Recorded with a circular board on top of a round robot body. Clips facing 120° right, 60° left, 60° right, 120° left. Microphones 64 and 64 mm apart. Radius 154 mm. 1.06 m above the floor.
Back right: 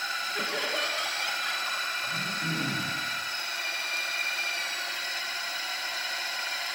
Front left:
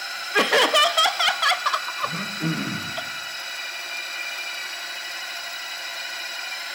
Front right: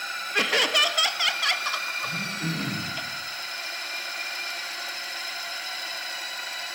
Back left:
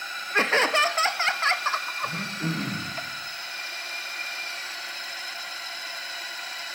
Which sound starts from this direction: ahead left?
Laughter, at 0.3 s.